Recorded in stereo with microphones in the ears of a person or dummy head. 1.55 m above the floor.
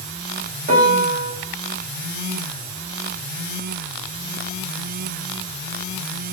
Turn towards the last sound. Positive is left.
turn(degrees=-40)  # may be behind; listen again after turning